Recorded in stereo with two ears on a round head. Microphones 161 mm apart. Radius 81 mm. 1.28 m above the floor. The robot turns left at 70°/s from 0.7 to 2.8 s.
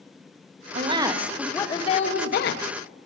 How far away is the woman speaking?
About 0.9 m.